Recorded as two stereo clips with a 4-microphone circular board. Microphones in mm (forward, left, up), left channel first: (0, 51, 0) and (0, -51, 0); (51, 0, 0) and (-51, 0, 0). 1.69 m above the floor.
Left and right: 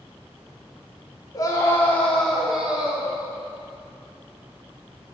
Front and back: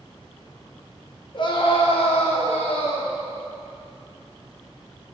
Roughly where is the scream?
Ahead left.